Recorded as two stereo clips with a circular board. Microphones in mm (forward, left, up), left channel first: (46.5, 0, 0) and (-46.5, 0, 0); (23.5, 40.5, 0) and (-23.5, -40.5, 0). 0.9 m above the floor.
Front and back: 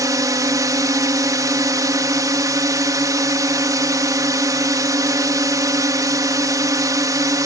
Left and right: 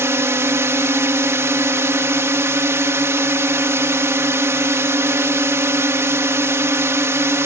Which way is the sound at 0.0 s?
165° right.